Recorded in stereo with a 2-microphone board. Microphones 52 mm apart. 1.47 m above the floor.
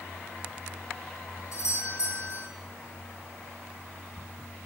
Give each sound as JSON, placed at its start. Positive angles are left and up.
{"t": 1.5, "sound": "a doorbell", "side_deg": 65, "distance_m": 4.0}